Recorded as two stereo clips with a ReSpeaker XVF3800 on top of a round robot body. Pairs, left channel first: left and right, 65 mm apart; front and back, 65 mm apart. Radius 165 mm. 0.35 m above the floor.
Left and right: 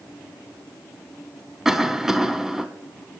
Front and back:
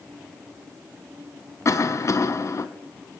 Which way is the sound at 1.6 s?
5° right.